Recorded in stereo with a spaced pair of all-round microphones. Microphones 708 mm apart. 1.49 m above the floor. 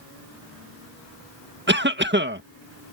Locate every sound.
1.7 s a cough: 15° right (ahead or behind)